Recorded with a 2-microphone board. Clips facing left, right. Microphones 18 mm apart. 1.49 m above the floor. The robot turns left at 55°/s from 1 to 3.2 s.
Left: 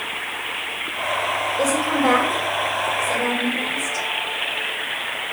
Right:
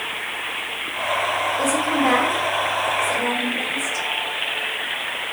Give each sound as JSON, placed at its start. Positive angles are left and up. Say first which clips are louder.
{"t": 1.6, "sound": "a woman speaking", "louder": "left 1 dB", "side_deg": 65, "distance_m": 4.0}